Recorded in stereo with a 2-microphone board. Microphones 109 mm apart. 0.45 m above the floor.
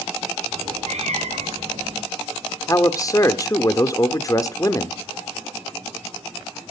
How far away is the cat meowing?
About 4.5 m.